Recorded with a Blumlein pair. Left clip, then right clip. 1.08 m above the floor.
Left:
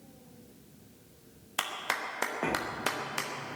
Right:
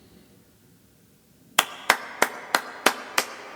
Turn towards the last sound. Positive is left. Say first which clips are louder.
# right 10 dB
turn(degrees=-60)